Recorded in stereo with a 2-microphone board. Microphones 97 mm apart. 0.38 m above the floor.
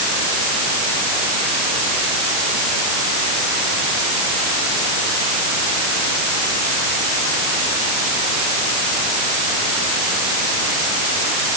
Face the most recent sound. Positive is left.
No sound to turn to.